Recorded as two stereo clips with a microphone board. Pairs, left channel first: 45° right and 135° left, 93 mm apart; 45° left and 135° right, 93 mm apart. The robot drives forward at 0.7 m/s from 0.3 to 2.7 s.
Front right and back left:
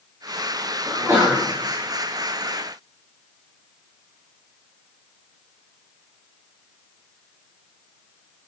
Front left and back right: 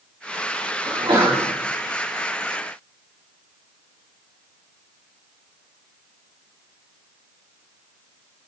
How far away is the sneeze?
About 2 m.